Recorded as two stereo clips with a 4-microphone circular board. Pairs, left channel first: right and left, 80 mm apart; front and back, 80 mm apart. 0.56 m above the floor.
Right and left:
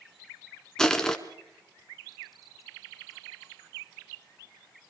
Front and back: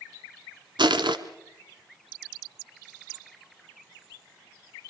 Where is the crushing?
175° right, 1.4 m.